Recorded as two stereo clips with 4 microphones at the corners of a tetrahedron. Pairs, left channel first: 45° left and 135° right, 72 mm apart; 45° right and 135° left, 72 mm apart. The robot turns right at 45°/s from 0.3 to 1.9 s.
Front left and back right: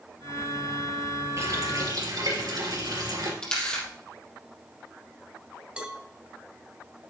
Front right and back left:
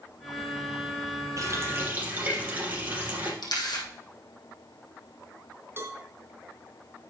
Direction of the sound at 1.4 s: 175° left.